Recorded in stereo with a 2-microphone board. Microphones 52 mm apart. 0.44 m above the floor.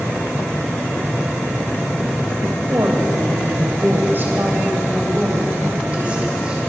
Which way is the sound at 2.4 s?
55° right (ahead or behind).